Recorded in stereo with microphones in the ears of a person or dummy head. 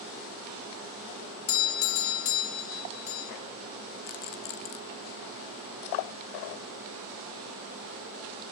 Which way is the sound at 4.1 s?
40° left (ahead or behind).